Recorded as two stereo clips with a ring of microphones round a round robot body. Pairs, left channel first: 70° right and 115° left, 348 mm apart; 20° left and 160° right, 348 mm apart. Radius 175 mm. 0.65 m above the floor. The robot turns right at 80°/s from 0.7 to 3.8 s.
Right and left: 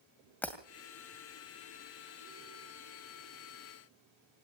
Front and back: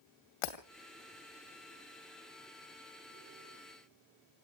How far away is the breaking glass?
About 2.5 m.